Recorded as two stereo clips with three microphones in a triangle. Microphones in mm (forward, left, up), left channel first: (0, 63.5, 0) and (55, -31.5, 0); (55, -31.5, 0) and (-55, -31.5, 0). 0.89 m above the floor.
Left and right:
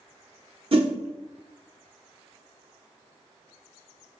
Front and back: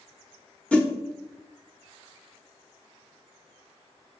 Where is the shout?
No shout in this recording.